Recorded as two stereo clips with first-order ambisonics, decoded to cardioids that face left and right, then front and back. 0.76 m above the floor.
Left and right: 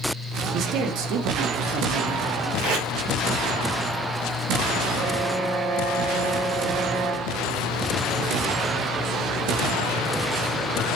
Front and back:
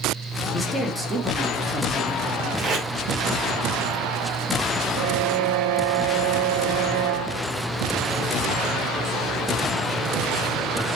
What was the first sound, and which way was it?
A man speaking, 65° right.